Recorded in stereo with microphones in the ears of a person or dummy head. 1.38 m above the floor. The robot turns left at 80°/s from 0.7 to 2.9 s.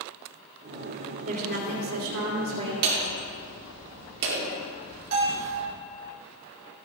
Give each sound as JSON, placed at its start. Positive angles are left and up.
{"t": 1.3, "sound": "a woman speaking", "azimuth_deg": -35, "distance_m": 2.5}
{"t": 2.8, "sound": "hammering", "side_deg": -60, "distance_m": 2.0}
{"t": 5.1, "sound": "a bell", "side_deg": -75, "distance_m": 4.0}